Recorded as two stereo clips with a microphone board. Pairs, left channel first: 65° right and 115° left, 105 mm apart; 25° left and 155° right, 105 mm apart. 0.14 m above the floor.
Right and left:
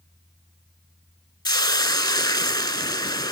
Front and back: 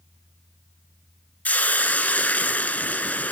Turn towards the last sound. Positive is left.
turn(degrees=-45)